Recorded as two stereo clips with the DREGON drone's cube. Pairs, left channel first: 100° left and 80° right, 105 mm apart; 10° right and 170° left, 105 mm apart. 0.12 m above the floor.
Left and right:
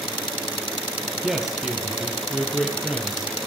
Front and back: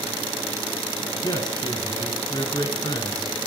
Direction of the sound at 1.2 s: 5° left.